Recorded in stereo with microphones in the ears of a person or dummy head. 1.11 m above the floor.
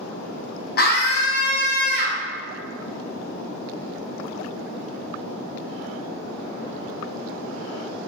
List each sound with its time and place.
0.8 s a scream: 45° left (ahead or behind), 0.7 m